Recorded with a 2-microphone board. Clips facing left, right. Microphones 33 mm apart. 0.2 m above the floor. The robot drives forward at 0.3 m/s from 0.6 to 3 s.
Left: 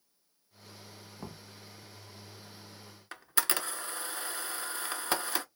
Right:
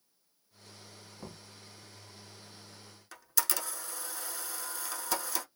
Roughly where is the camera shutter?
Left.